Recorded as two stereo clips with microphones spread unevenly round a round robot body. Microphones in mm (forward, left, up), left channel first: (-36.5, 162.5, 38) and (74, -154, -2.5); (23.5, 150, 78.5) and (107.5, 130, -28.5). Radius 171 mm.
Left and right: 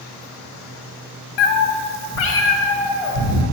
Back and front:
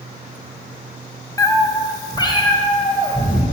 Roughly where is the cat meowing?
Left.